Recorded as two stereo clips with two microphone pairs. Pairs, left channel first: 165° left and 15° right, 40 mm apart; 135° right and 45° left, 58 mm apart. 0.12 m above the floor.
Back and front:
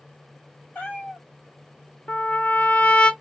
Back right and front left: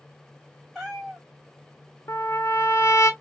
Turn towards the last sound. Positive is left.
turn(degrees=-145)